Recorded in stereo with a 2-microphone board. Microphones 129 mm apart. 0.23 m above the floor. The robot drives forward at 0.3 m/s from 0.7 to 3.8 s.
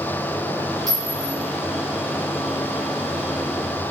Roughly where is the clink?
Right.